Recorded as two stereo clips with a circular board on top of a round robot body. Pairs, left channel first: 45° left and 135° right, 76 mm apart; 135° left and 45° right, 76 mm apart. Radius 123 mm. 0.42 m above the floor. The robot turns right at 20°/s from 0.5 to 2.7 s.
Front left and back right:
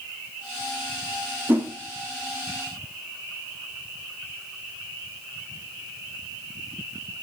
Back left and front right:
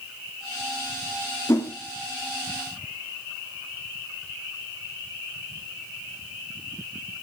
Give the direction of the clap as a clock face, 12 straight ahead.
I don't hear a clap.